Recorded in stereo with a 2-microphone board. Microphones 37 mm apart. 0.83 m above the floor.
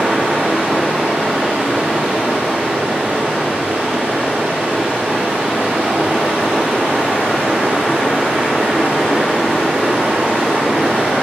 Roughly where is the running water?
Right.